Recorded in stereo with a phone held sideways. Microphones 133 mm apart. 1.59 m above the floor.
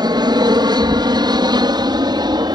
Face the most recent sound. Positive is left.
turn(degrees=-35)  # may be behind; listen again after turning